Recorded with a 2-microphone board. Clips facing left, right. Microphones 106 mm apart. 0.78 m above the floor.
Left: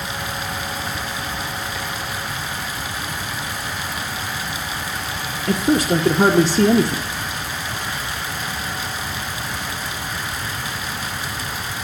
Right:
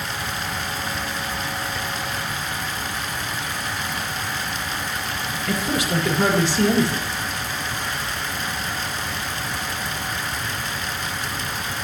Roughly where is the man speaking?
Left.